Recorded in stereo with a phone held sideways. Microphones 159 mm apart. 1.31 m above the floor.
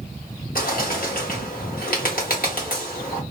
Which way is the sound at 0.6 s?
65° left (ahead or behind).